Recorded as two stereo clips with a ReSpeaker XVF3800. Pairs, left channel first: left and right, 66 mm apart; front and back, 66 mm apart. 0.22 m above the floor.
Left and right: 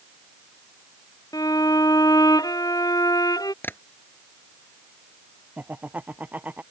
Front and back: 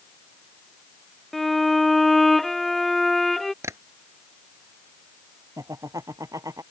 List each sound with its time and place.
1.3 s a violin: 85° left
3.6 s tapping: 145° left
5.6 s laughter: 155° right